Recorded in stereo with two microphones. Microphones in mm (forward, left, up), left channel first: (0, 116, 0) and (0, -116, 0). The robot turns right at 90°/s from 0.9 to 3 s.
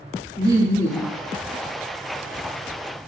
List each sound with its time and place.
0.4 s laughter: 15° right (ahead or behind), 1.1 m; by 1.2 s 20° right (ahead or behind), 1.1 m